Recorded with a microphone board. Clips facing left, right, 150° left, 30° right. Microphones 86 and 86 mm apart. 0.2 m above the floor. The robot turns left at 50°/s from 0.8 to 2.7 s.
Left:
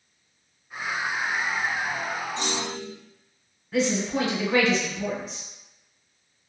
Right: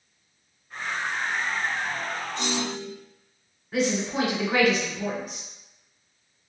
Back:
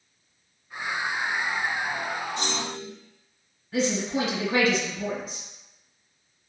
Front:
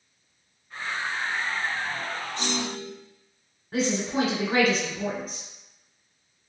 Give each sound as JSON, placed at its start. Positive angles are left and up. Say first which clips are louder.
{"t": 2.4, "sound": "a clunk", "louder": "right 1 dB, front 1 dB", "azimuth_deg": 100, "distance_m": 1.4}
{"t": 3.7, "sound": "a woman speaking", "louder": "left 1 dB, even", "azimuth_deg": -15, "distance_m": 1.3}